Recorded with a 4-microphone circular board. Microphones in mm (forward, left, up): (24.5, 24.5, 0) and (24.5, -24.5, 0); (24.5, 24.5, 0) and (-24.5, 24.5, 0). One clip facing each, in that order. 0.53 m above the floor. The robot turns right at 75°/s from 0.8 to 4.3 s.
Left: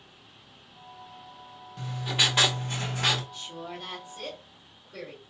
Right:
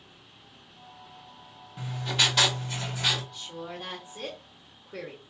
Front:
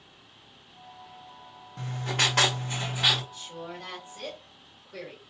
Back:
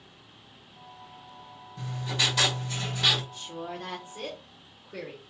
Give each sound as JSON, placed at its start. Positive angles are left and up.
{"t": 1.8, "sound": "writing", "azimuth_deg": -20, "distance_m": 1.0}
{"t": 3.3, "sound": "a woman speaking", "azimuth_deg": 170, "distance_m": 1.3}